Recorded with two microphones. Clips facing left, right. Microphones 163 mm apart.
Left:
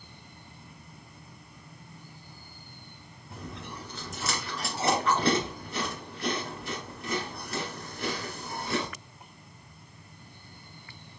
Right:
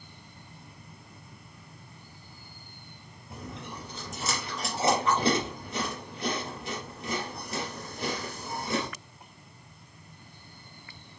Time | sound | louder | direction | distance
3.3 | chewing | right 1 dB | 20° right (ahead or behind) | 1.9 m